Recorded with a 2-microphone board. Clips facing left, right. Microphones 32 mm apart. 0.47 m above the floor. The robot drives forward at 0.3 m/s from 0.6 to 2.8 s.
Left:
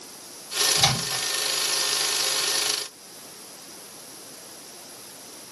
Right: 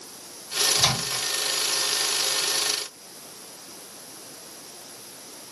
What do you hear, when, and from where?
0.8 s a microwave: 45° left (ahead or behind), 1.4 m; by 1.2 s 50° left (ahead or behind), 1.4 m